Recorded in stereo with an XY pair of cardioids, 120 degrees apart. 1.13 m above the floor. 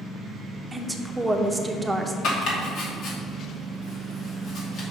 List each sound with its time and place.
0.7 s a woman speaking: 15° right, 0.8 m
2.2 s chopping: 70° left, 2 m